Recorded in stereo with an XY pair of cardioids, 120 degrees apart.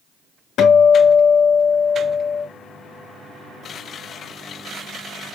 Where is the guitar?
65° left, 2.5 m.